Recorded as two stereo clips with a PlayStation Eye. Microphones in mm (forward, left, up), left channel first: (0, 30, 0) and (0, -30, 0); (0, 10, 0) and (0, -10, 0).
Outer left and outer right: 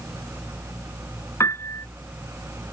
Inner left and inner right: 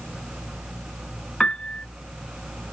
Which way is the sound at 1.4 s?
55° left (ahead or behind).